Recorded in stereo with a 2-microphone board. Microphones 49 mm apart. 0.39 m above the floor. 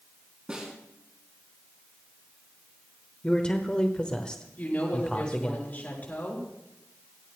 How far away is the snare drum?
About 4 m.